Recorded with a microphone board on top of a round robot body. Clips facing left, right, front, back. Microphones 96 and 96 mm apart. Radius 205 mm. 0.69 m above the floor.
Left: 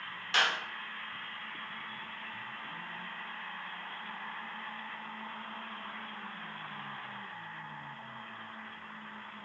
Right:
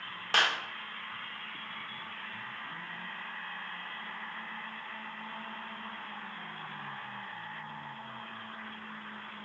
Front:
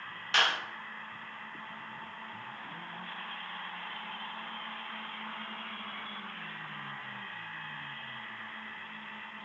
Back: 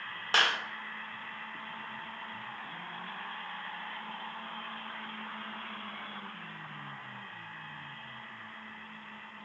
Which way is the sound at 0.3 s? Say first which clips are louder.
Right 1 dB, back 1 dB; 130° right.